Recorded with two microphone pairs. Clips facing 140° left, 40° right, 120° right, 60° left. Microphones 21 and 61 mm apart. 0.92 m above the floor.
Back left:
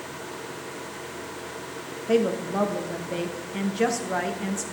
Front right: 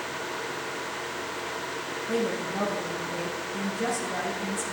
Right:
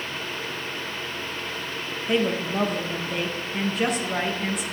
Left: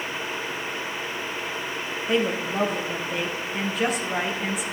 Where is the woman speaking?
150° left, 1.1 m.